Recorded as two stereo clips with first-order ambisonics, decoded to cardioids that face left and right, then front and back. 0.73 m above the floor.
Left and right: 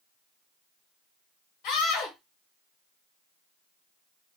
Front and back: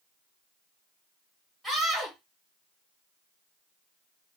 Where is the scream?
90° left, 1.4 m.